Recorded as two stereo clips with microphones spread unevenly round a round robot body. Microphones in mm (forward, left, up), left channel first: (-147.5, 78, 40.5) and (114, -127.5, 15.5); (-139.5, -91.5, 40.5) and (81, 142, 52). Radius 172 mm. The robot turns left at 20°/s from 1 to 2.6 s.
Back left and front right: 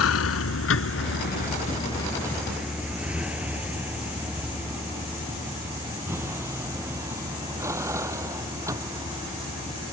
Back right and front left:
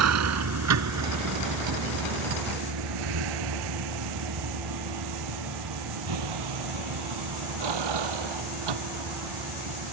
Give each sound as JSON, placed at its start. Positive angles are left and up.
{"t": 0.0, "sound": "a vehicle", "azimuth_deg": 90}